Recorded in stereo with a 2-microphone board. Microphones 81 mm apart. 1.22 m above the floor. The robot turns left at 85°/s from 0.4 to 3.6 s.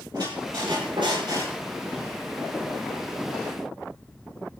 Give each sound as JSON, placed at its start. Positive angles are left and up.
{"t": 0.1, "sound": "a squeak", "azimuth_deg": -55, "distance_m": 8.5}